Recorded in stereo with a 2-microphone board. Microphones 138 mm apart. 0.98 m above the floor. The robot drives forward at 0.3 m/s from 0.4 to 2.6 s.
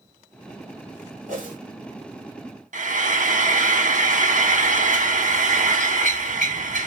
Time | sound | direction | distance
1.3 | a whoosh | 65° right (ahead or behind) | 2.5 m
2.7 | frying | 70° right (ahead or behind) | 1.0 m